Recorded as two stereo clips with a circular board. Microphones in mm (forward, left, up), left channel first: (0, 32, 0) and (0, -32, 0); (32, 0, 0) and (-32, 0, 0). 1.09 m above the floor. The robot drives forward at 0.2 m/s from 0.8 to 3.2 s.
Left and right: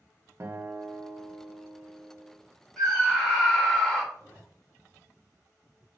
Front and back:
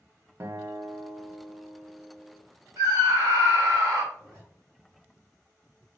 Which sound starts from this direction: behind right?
A guitar, at 0.4 s.